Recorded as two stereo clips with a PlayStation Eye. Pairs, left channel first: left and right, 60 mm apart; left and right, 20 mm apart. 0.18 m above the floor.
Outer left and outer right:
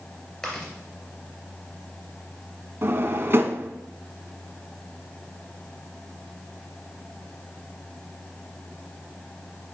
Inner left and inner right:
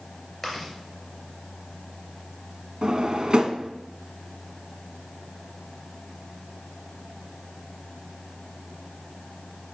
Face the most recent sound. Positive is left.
turn(degrees=-45)  # may be behind; listen again after turning